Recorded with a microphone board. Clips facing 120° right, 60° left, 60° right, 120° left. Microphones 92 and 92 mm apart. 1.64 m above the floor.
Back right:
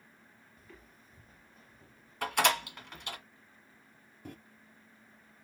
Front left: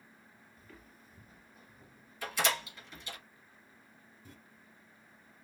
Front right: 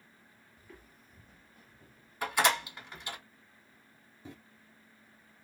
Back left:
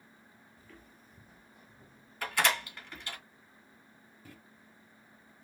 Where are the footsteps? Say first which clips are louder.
Even, front right 2 dB; 30° right, 1.7 m; by 3.2 s 120° left, 2.5 m.